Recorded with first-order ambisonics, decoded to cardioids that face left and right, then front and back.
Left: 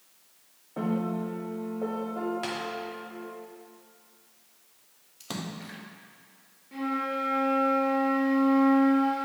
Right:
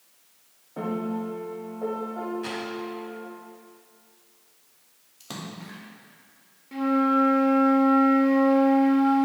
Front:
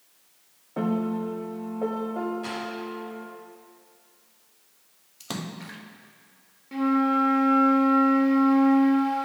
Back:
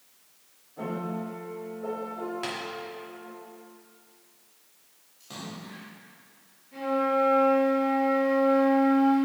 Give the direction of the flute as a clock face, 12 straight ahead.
1 o'clock.